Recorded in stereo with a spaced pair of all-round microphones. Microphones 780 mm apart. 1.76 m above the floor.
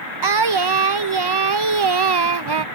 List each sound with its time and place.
0.2 s singing: 35° right (ahead or behind)